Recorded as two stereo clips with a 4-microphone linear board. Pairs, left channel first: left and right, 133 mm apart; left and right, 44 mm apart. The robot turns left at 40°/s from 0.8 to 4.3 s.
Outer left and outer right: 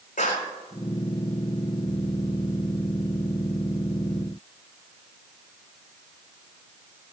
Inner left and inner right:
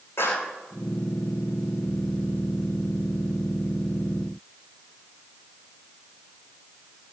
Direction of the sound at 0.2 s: 85° left.